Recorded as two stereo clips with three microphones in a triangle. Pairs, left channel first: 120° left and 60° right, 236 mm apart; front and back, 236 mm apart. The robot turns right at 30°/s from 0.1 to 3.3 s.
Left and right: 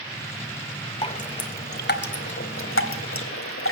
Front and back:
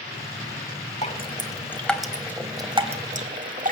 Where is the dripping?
60° left, 1.4 m; by 3.7 s 130° left, 1.4 m.